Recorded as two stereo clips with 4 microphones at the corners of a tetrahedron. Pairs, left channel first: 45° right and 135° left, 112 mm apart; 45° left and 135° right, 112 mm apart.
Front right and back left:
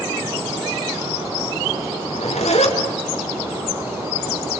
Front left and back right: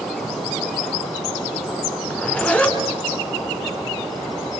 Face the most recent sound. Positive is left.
turn(degrees=-35)